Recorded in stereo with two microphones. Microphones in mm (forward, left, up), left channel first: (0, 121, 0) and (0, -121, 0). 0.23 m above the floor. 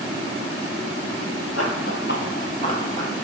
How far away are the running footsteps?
About 2.0 m.